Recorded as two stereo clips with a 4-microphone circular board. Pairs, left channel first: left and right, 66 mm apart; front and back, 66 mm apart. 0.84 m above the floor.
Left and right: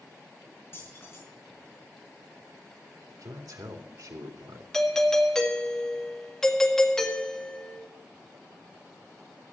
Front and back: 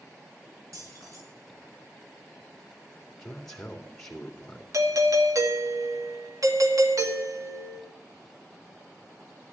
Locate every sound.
0.7 s keys jangling: 145° left, 6.5 m
3.1 s a man speaking: 80° right, 2.5 m
4.7 s a doorbell: 175° left, 1.8 m